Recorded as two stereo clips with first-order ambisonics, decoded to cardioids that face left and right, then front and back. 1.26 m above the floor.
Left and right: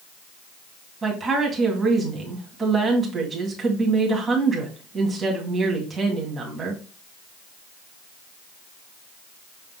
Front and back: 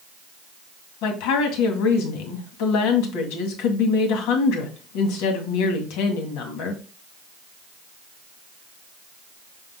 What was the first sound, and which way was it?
A woman speaking, 15° right.